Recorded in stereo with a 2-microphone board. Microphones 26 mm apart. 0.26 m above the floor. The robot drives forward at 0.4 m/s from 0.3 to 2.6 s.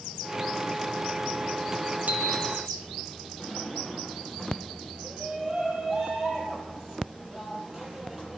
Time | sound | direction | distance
2.1 | a bicycle bell | 65° right (ahead or behind) | 4.5 m
3.4 | a drawer | 15° right (ahead or behind) | 9 m
5.0 | a shout | 20° right (ahead or behind) | 7.5 m